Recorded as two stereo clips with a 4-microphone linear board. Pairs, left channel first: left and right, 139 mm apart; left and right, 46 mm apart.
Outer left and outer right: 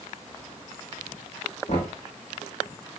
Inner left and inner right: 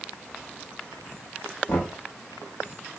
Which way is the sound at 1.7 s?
55° left (ahead or behind).